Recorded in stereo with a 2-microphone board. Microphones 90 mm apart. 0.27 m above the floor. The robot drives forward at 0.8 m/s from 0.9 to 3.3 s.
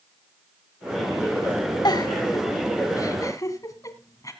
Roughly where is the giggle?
Left.